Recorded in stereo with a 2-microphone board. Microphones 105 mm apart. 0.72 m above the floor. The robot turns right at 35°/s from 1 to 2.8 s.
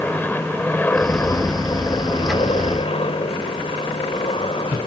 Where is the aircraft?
20° left; by 4.9 s 80° left.